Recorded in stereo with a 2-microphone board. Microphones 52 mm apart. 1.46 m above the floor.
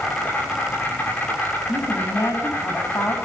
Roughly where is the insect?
Left.